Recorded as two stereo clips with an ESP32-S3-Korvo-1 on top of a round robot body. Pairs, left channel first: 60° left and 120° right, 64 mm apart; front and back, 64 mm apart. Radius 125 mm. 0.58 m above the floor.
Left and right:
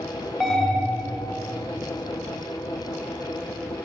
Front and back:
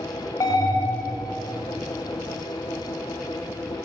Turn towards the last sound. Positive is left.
turn(degrees=-25)